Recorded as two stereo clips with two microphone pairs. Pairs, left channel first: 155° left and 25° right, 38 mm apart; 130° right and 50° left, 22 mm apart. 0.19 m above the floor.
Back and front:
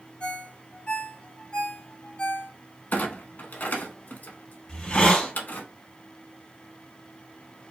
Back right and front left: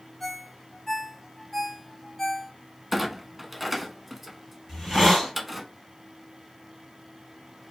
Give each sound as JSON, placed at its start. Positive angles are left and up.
{"t": 0.2, "sound": "a ringtone", "azimuth_deg": 160, "distance_m": 0.7}
{"t": 2.9, "sound": "a clunk", "azimuth_deg": 125, "distance_m": 0.6}
{"t": 4.7, "sound": "a hiss", "azimuth_deg": 120, "distance_m": 1.9}